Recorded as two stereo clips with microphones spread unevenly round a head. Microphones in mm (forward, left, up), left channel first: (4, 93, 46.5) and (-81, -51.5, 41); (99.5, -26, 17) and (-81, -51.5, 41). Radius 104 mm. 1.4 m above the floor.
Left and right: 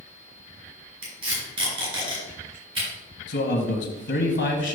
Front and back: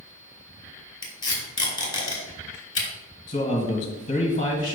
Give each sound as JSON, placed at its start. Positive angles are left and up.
{"t": 1.0, "sound": "tape being pulled", "azimuth_deg": -55, "distance_m": 3.0}
{"t": 3.3, "sound": "a man speaking", "azimuth_deg": 60, "distance_m": 1.5}